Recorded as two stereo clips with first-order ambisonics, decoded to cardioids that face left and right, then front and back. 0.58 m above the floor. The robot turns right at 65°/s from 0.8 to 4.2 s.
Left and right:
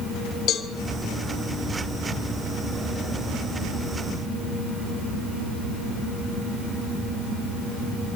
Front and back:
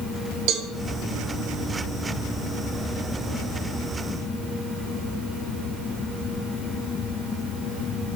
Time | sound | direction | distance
0.5 | a cowbell | 145° left | 1.6 m